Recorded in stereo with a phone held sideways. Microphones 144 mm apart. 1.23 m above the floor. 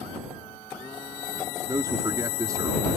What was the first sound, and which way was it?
A man speaking, 25° right (ahead or behind).